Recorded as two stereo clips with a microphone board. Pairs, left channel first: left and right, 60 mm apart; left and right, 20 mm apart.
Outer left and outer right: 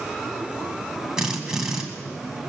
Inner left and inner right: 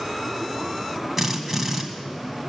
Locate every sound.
1.2 s a drill: 10° right (ahead or behind), 1.9 m